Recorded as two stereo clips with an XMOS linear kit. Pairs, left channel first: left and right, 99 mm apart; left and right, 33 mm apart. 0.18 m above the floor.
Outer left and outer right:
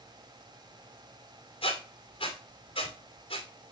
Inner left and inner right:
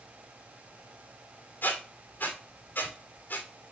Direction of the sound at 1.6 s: 70° left (ahead or behind).